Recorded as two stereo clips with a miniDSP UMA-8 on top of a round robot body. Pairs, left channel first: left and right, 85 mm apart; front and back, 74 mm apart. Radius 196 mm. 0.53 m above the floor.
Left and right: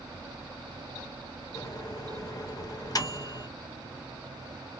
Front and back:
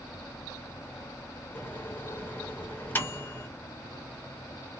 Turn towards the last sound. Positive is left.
turn(degrees=60)